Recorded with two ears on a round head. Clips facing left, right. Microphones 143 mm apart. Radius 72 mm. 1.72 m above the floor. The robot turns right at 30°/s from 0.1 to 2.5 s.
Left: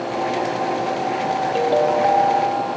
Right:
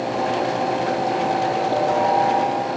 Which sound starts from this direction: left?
A ringtone, at 1.6 s.